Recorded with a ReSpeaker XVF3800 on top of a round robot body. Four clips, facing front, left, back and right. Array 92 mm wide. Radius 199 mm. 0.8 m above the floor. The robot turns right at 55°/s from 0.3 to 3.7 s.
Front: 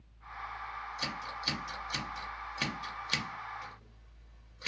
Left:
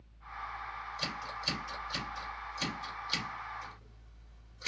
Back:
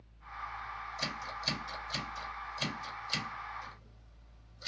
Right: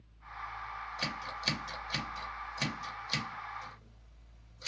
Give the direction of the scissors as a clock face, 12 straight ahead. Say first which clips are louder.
Right 2 dB, even; 4 o'clock.